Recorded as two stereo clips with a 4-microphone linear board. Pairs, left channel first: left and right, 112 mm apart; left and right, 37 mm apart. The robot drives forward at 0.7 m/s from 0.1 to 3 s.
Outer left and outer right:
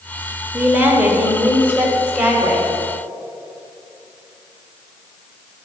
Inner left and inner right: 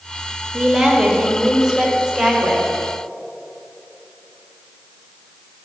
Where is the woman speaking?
20° right (ahead or behind), 1.1 m; by 2.7 s 10° right (ahead or behind), 1.9 m.